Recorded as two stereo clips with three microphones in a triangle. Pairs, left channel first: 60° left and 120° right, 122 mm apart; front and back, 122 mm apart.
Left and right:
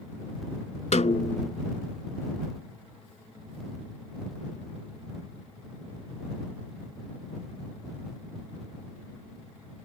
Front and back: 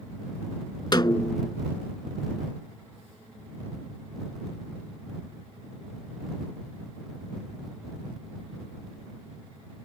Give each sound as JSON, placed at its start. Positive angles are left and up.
{"t": 0.9, "sound": "a snare drum", "azimuth_deg": 50}